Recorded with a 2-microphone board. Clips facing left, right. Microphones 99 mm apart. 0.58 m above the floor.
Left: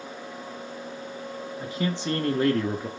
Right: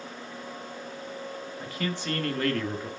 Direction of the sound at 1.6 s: 20° left (ahead or behind).